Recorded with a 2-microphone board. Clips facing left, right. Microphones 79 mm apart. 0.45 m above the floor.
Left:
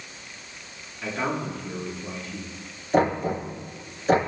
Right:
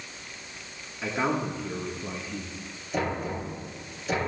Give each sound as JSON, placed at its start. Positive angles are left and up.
{"t": 1.0, "sound": "a man speaking", "side_deg": -15, "distance_m": 4.5}
{"t": 2.9, "sound": "knocking", "side_deg": 50, "distance_m": 6.5}